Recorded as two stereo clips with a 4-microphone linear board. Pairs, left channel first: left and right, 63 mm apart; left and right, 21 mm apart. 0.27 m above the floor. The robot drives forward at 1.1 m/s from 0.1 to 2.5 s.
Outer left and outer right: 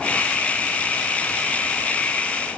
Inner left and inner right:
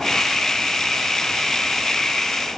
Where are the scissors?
No scissors in this recording.